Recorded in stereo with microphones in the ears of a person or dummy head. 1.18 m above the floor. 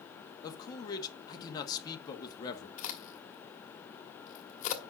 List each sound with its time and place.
0.4 s a man speaking: 25° left (ahead or behind), 1.7 m
2.8 s a crack: 50° left (ahead or behind), 1.9 m